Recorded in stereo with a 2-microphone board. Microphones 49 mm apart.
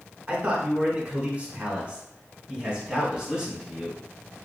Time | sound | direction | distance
0.3 | a man speaking | 30° right (ahead or behind) | 1.3 m